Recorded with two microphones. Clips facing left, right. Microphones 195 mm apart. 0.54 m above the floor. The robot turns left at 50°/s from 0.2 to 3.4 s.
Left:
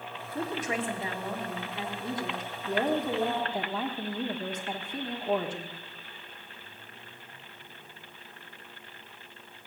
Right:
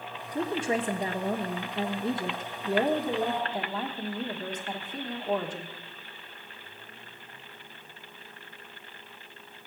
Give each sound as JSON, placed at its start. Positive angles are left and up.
{"t": 0.3, "sound": "a woman speaking", "azimuth_deg": -40, "distance_m": 1.3}